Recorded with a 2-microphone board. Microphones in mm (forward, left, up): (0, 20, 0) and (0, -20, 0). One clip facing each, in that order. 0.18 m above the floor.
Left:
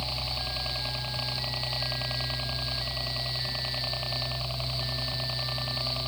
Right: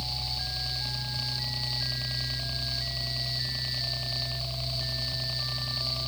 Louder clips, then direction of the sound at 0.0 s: Left 2 dB; 40° left (ahead or behind).